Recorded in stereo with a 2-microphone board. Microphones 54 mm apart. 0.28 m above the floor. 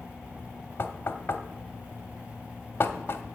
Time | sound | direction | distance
0.8 | knocking | 45° left (ahead or behind) | 0.8 m